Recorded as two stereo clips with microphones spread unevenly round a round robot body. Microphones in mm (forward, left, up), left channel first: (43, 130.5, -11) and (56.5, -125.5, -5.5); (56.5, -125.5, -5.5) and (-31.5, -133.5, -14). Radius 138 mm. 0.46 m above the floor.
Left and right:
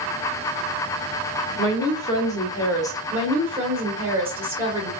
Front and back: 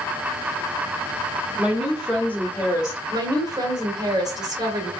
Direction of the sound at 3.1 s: 170° right.